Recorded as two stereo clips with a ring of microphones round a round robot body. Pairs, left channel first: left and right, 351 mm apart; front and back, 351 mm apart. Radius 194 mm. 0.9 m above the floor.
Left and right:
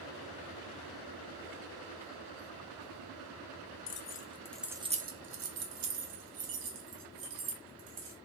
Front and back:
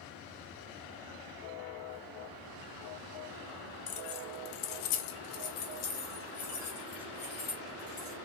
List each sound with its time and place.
3.9 s keys jangling: 30° left, 0.8 m; by 8.2 s 70° right, 2 m